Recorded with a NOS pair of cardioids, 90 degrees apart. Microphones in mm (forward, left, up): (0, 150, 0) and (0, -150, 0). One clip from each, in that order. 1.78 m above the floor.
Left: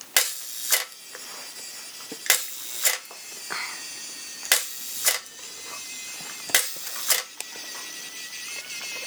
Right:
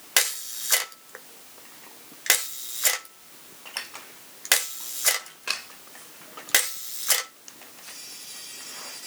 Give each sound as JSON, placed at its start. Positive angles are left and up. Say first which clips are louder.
{"t": 0.2, "sound": "a camera shutter", "louder": "even", "azimuth_deg": 0, "distance_m": 1.0}